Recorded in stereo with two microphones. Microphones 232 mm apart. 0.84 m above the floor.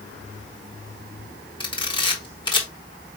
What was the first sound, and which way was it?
A camera shutter, 20° left (ahead or behind).